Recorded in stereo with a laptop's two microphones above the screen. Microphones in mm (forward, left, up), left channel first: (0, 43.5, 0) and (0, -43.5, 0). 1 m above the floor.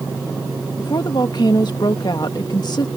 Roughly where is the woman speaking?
Left.